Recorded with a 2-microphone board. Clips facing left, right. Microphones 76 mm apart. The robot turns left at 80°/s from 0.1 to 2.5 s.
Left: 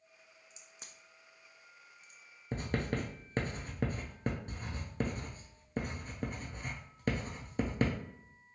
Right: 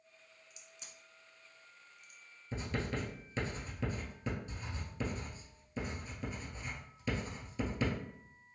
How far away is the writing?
About 0.7 m.